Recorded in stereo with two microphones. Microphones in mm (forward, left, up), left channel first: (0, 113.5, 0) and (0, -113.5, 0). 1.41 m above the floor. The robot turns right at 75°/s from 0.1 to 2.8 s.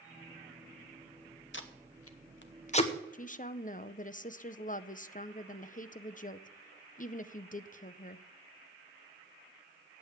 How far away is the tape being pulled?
About 0.9 m.